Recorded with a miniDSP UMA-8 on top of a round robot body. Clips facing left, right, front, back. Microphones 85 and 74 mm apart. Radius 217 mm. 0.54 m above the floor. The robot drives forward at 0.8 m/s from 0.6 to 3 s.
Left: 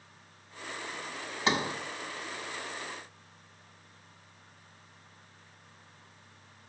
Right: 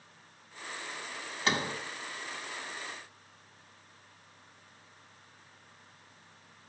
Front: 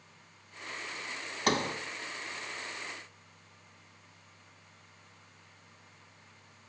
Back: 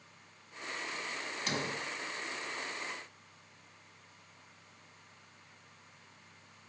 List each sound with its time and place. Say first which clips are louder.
1.5 s a sliding door: left 2 dB, front 8 dB; 15° left, 1.7 m; by 1.8 s 20° left, 1.5 m